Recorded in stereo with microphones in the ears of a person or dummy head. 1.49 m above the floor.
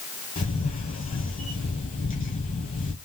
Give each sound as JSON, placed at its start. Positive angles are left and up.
{"t": 0.4, "sound": "a camera shutter", "side_deg": 40, "distance_m": 1.0}